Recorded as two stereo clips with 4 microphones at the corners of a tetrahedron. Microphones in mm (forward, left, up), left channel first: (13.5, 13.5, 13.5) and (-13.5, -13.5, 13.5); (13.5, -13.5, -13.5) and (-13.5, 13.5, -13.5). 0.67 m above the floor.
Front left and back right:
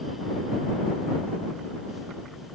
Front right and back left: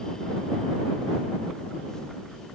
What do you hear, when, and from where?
Only background noise.